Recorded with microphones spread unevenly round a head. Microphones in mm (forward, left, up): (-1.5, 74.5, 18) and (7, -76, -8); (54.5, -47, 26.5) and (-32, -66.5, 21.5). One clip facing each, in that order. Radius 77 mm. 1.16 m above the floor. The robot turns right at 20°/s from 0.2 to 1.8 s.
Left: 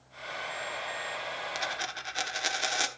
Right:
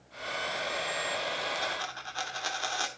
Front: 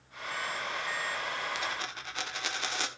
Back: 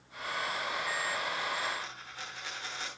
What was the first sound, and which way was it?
A dropped coin, 25° left.